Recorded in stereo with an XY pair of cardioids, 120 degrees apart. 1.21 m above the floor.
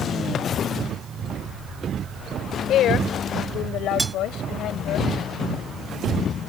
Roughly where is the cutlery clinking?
Ahead.